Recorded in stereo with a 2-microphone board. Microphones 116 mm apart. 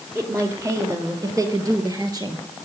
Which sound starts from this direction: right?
A woman speaking, at 0.1 s.